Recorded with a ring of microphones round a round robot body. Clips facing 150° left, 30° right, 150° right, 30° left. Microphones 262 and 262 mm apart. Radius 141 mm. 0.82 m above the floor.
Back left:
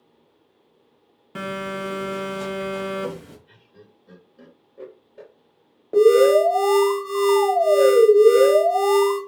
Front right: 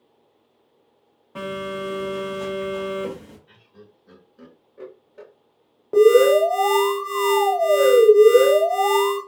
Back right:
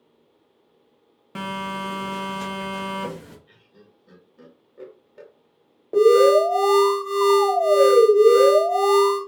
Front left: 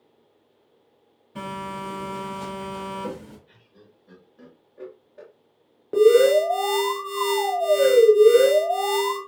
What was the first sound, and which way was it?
A phone buzzing, 155° right.